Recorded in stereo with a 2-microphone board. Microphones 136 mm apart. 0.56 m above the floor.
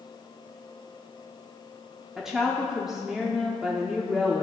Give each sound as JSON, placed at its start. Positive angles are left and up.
{"t": 2.2, "sound": "a woman speaking", "side_deg": -5, "distance_m": 0.8}